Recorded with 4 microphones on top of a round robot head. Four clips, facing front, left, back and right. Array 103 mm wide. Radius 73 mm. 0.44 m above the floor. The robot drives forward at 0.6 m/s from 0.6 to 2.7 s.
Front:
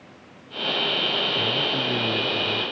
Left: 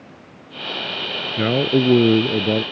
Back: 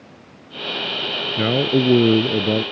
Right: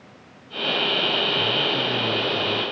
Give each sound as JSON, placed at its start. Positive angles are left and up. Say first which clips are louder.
{"t": 1.4, "sound": "a man speaking", "louder": "left 7 dB, back 8 dB", "azimuth_deg": 130}